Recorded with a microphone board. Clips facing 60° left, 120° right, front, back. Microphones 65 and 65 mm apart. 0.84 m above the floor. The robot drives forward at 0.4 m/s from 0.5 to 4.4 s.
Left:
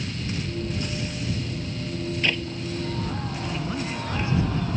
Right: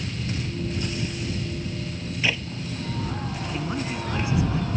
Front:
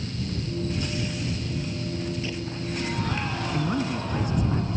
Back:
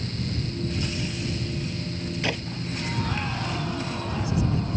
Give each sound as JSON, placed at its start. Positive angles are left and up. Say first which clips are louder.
{"t": 2.2, "sound": "a clap", "louder": "right 1 dB, back 3 dB", "azimuth_deg": 155}
{"t": 3.5, "sound": "a man speaking", "louder": "right 3 dB, front 3 dB", "azimuth_deg": -45}